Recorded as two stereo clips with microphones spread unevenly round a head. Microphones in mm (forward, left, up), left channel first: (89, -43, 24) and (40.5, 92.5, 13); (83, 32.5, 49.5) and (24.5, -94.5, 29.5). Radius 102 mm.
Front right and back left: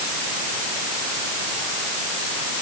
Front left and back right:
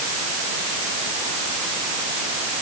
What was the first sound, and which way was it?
Only background noise.